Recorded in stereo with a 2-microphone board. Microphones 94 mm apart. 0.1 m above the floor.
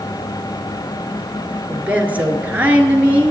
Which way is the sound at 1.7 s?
20° right (ahead or behind).